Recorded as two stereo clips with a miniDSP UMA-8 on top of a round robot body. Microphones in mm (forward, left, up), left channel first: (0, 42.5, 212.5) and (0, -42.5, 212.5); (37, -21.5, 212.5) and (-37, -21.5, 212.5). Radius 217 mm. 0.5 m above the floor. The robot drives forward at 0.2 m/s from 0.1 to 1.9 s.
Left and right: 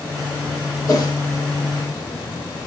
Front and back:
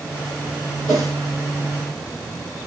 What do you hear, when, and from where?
0.9 s a whoosh: 140° left, 3 m